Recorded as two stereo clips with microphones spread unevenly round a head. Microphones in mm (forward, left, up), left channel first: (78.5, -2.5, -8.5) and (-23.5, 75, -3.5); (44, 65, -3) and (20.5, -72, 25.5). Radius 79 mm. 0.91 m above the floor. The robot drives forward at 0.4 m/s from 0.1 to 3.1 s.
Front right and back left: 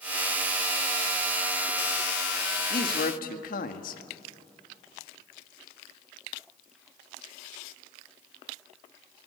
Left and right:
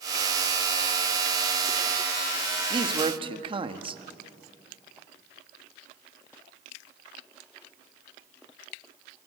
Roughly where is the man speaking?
Ahead right.